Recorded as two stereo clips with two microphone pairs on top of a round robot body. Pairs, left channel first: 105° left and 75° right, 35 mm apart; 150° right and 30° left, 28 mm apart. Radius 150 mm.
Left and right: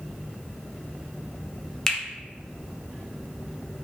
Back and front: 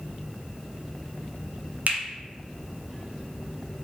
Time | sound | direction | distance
1.9 | a finger snap | 35° left | 0.8 m